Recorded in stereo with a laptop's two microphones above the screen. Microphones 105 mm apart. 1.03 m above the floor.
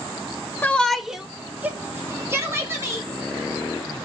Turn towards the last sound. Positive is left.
turn(degrees=-25)  # may be behind; listen again after turning